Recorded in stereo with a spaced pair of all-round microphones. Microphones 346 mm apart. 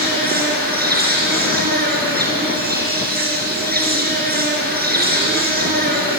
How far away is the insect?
About 4 m.